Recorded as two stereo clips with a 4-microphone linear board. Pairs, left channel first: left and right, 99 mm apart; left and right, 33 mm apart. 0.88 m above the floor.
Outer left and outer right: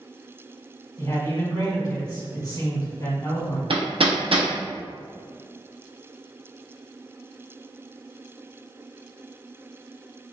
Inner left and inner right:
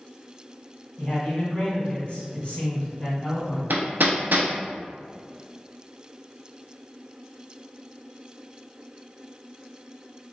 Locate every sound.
1.0 s a man speaking: 40° left (ahead or behind), 1.3 m
3.7 s hammering: 70° right (ahead or behind), 0.5 m